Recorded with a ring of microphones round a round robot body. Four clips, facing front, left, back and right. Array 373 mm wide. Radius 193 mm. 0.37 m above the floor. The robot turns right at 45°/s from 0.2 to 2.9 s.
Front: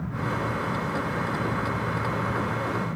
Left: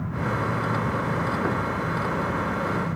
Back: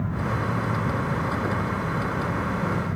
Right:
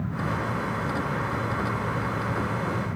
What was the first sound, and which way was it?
Only background noise.